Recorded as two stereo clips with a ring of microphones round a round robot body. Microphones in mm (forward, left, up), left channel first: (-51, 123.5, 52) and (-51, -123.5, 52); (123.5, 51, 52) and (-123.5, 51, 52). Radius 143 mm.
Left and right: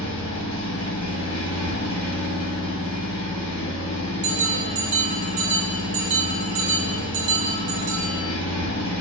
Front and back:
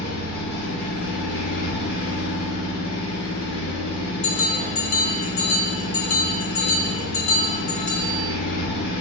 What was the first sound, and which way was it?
An engine running, 50° left.